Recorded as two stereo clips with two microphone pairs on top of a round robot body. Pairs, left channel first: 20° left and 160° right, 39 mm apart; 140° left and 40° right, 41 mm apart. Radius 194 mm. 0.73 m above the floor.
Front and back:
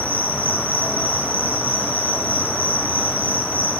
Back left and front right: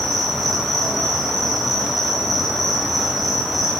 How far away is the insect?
About 3.5 m.